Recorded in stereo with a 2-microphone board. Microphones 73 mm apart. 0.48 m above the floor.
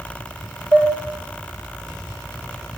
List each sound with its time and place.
0.7 s dishes clattering: 35° right (ahead or behind), 6.5 m